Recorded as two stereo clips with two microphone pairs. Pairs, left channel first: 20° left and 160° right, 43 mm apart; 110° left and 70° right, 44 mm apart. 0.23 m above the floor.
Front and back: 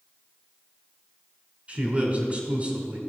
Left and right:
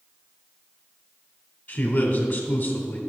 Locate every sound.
1.7 s a man speaking: 160° left, 1.4 m